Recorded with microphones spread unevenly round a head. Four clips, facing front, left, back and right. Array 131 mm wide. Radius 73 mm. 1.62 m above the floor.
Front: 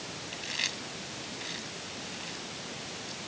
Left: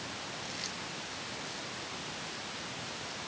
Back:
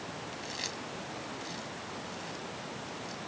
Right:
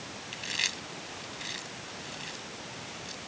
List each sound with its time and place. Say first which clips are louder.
0.3 s chewing: right 2 dB, even; 55° right